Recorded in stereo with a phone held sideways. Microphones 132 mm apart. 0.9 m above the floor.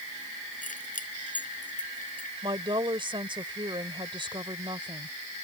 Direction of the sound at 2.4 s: 40° right (ahead or behind).